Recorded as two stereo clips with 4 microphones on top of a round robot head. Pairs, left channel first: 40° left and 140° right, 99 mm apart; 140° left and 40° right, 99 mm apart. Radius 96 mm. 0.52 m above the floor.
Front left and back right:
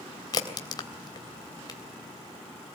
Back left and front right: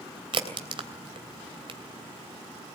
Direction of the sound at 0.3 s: 5° right.